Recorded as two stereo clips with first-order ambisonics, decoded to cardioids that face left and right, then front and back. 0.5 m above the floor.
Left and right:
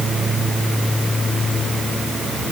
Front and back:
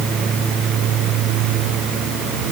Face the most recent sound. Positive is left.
No sound to turn to.